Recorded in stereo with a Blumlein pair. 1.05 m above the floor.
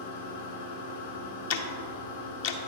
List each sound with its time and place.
0.0 s a machine running: 70° left, 2 m
1.5 s ticking: 50° left, 0.7 m